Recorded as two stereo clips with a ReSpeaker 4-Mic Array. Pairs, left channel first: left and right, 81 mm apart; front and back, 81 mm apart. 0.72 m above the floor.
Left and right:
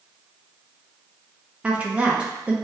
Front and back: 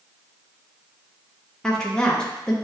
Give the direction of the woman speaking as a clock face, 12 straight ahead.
2 o'clock.